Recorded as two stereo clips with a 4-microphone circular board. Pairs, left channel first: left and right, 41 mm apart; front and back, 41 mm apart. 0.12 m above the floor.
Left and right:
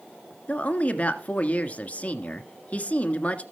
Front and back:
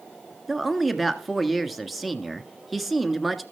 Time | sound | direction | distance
0.5 | a woman speaking | 95° left | 1.5 m